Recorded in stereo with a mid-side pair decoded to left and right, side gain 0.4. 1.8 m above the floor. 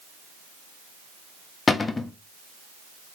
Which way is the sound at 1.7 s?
40° left.